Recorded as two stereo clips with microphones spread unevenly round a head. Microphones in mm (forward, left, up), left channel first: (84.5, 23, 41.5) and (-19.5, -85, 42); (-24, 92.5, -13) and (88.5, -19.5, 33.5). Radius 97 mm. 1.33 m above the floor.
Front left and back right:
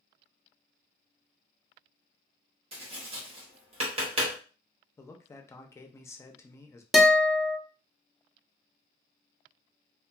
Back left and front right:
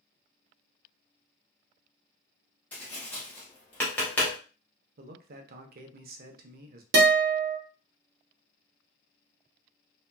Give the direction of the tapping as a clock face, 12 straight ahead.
4 o'clock.